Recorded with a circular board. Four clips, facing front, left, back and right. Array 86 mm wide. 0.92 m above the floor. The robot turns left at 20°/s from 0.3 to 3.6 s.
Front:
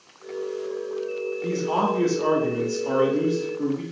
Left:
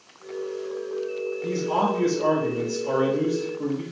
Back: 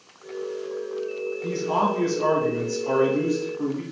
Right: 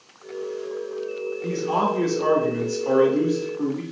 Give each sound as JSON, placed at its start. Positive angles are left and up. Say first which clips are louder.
{"t": 1.4, "sound": "a man speaking", "louder": "right 1 dB, even", "azimuth_deg": -40, "distance_m": 1.7}